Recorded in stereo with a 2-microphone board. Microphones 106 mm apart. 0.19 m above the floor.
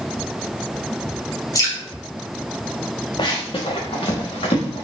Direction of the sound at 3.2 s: 50° left (ahead or behind).